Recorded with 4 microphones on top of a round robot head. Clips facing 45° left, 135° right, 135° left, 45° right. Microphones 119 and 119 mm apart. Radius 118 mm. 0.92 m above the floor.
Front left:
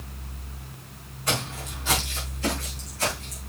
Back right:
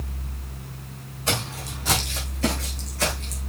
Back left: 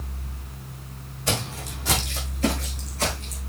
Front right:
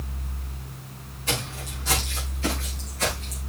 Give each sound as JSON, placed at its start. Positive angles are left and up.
{"t": 1.3, "sound": "footsteps", "azimuth_deg": 160, "distance_m": 3.5}